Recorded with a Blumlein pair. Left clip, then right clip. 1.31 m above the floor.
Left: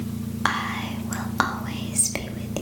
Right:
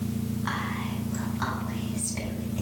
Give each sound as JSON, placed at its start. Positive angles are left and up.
{"t": 0.5, "sound": "whispering", "azimuth_deg": 50, "distance_m": 1.6}